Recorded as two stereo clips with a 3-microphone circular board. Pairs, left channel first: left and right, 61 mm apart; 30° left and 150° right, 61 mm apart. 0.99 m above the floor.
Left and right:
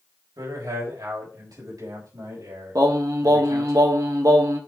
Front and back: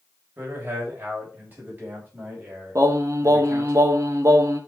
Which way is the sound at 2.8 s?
115° right.